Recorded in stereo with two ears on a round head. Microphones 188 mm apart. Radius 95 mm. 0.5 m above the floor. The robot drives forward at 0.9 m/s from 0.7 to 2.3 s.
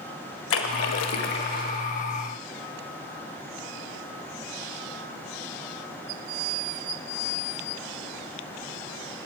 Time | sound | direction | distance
0.5 | a splash | 65° left (ahead or behind) | 0.6 m